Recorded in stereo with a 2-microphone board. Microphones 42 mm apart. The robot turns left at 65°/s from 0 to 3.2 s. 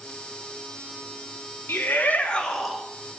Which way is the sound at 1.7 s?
70° left.